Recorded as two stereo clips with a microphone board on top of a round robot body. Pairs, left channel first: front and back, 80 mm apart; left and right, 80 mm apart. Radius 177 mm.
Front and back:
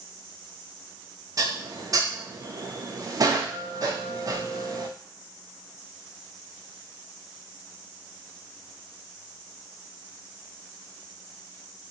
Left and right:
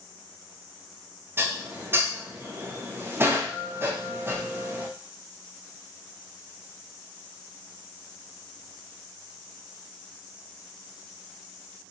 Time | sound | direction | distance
1.4 | dishes clattering | 145° right | 1.0 m